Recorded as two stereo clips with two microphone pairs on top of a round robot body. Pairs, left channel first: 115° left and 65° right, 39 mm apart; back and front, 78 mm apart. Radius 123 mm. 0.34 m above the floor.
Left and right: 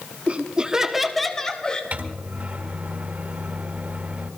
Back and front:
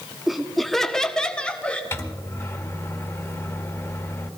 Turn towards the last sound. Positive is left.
turn(degrees=-120)